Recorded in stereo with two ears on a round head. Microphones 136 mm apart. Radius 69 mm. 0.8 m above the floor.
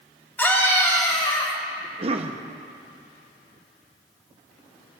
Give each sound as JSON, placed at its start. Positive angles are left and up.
{"t": 0.4, "sound": "a scream", "side_deg": 15, "distance_m": 4.0}
{"t": 1.8, "sound": "a cough", "side_deg": -40, "distance_m": 0.8}